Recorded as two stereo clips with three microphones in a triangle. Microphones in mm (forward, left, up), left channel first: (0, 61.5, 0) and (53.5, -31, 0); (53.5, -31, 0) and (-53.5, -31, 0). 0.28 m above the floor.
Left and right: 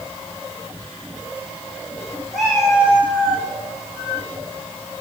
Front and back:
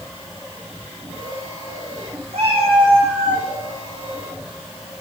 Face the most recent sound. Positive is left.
turn(degrees=-130)